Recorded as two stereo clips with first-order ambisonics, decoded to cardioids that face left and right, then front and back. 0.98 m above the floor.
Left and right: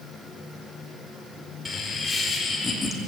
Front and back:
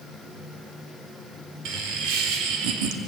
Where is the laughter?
165° left, 3.5 m.